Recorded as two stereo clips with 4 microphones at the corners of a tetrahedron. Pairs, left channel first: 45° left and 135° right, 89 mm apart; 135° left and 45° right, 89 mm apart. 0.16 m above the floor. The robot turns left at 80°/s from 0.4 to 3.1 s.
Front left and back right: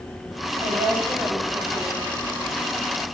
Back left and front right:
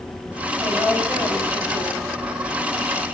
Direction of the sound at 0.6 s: 155° right.